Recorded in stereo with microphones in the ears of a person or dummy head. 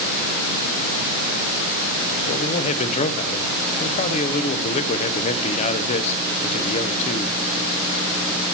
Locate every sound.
2.3 s a man speaking: 45° left (ahead or behind), 0.7 m